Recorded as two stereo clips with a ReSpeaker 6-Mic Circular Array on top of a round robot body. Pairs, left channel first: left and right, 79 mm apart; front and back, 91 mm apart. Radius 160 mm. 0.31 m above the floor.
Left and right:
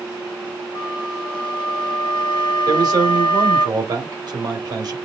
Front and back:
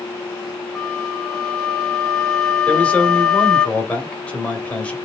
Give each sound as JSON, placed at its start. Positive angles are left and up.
{"t": 0.8, "sound": "a flute", "azimuth_deg": 80, "distance_m": 1.1}
{"t": 2.7, "sound": "a man speaking", "azimuth_deg": -75, "distance_m": 1.9}